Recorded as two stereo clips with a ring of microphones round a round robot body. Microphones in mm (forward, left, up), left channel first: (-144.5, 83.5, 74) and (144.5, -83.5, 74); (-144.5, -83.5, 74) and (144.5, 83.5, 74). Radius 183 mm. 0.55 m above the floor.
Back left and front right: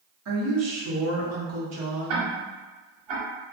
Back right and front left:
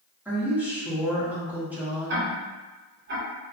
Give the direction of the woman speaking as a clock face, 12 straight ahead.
2 o'clock.